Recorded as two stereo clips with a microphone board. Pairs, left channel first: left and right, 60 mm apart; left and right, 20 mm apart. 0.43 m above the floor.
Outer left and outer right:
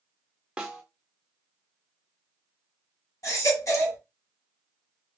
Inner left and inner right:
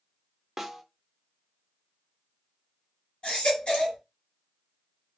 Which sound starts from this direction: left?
A baby crying, at 3.2 s.